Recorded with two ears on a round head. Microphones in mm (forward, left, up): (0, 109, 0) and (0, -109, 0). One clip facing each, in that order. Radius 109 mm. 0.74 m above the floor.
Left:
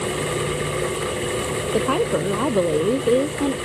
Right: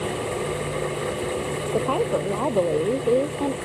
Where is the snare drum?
I don't hear a snare drum.